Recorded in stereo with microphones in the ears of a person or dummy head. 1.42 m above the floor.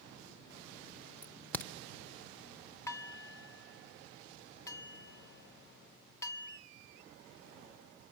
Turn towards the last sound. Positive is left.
turn(degrees=20)  # may be behind; listen again after turning